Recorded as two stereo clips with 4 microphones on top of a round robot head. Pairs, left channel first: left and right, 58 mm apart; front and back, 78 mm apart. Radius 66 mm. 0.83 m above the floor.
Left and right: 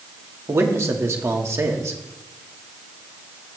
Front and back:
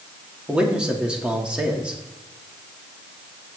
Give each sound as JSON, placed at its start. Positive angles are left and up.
{"t": 0.5, "sound": "a man speaking", "azimuth_deg": -105, "distance_m": 1.5}